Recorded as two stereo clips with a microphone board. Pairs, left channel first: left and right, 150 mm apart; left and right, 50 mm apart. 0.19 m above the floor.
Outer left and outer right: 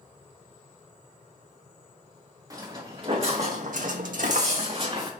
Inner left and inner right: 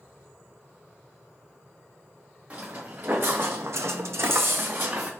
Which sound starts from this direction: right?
Footsteps, at 2.5 s.